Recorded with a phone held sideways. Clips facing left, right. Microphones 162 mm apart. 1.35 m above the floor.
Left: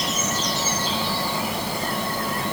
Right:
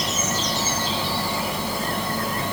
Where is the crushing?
No crushing in this recording.